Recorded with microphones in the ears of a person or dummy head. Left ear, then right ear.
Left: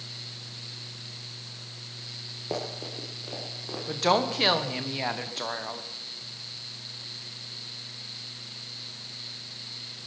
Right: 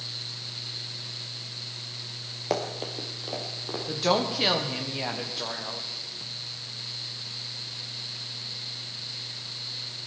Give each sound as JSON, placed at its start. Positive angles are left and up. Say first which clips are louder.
{"t": 2.5, "sound": "running footsteps", "louder": "right 4 dB", "side_deg": -20, "distance_m": 1.8}
{"t": 3.9, "sound": "a woman speaking", "louder": "left 1 dB", "side_deg": 30, "distance_m": 1.3}